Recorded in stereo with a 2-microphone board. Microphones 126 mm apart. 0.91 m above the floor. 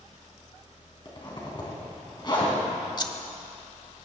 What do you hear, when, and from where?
1.1 s a zipper: 35° left (ahead or behind), 3.5 m
3.0 s scissors: 35° left (ahead or behind), 0.9 m